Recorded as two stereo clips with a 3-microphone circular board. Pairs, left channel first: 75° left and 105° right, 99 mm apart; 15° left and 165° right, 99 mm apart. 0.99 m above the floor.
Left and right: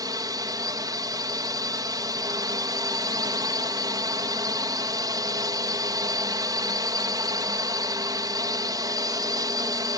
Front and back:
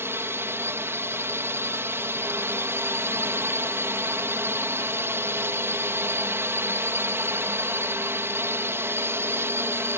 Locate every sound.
0.0 s a drone: 115° right